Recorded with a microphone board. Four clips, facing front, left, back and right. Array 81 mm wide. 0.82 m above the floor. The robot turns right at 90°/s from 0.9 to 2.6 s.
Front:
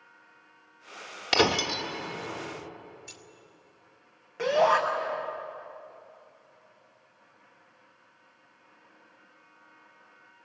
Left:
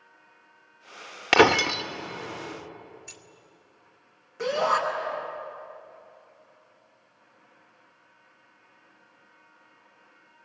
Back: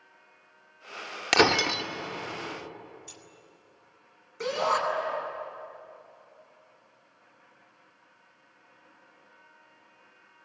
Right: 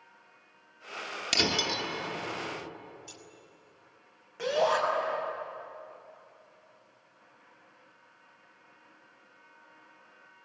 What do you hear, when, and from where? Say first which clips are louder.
1.3 s breaking glass: left 13 dB, back 2 dB; 100° left, 1.0 m; by 1.8 s 145° left, 1.0 m
3.1 s keys jangling: even, even; 55° left, 2 m
4.4 s a shout: left 2 dB, front 5 dB; 5° right, 6 m